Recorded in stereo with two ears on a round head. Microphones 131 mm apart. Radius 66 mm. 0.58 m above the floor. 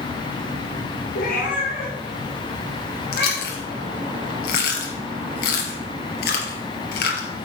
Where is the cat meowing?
65° left (ahead or behind), 3 m; by 3.7 s 45° left (ahead or behind), 6 m.